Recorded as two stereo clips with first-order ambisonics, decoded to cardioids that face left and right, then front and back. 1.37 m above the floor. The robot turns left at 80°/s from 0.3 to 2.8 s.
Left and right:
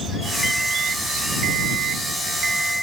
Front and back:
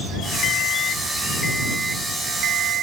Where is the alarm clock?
5° left; by 2.8 s 175° left.